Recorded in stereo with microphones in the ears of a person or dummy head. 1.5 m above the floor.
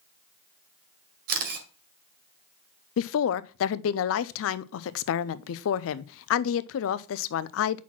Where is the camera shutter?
45° right (ahead or behind), 2 m.